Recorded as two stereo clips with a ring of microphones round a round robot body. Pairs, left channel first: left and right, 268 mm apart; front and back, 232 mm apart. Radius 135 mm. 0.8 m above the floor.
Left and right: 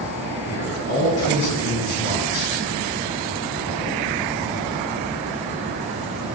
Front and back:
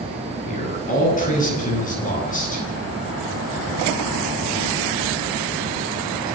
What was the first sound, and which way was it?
A man speaking, 55° left.